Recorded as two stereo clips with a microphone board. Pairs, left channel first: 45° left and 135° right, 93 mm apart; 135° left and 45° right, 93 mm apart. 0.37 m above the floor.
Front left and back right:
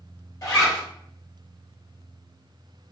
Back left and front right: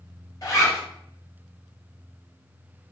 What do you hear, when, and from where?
0.4 s a zipper: 90° left, 1.5 m